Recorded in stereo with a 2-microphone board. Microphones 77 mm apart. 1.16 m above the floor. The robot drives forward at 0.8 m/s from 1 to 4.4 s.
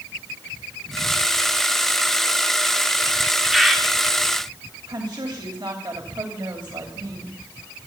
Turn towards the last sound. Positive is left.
turn(degrees=-75)  # may be behind; listen again after turning